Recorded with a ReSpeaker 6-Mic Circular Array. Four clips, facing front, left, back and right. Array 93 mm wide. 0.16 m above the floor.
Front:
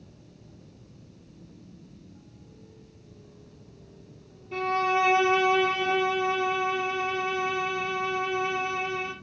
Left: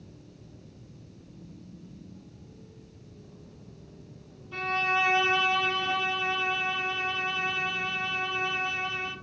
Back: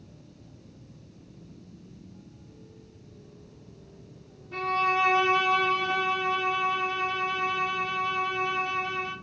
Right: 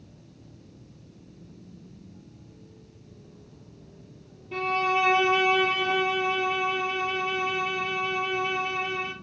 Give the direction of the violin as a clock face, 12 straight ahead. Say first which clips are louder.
Right 4 dB, front 1 dB; 2 o'clock.